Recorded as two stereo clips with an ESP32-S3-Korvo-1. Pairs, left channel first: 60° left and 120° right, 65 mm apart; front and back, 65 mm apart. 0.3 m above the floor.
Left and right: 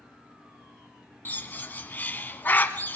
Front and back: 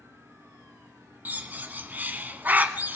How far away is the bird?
About 0.8 m.